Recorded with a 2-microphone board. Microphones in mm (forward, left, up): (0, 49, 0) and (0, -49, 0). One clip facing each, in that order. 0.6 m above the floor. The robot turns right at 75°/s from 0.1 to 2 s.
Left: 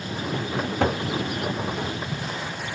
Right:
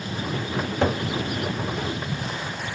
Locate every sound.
0.6 s a cupboard door: 55° left (ahead or behind), 1.6 m